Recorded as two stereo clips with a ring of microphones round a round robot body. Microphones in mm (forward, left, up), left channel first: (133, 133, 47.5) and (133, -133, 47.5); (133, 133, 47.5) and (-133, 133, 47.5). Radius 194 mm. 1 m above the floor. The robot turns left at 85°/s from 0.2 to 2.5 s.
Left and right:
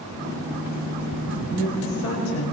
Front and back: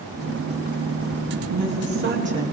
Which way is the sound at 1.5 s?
175° right.